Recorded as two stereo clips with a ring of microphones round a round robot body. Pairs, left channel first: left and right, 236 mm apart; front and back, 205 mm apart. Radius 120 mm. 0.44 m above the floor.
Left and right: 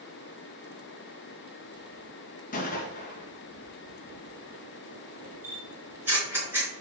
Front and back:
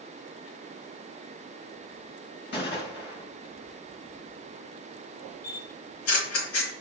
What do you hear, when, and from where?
2.5 s a gunshot: 35° left, 2.5 m
5.4 s a camera shutter: 10° right, 4.5 m